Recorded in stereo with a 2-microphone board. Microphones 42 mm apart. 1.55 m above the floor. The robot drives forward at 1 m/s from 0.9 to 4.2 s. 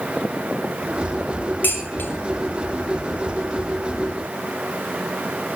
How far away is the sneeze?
No sneeze in this recording.